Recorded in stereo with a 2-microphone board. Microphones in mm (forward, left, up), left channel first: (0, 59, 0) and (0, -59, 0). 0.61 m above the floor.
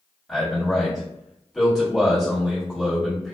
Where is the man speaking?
5° left (ahead or behind), 1.6 m.